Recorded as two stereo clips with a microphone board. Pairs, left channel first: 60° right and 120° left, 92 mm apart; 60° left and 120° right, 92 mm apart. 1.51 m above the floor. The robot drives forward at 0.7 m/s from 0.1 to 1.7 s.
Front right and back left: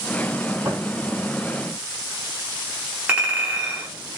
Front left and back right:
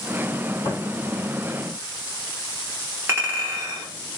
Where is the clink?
170° right, 1.1 m.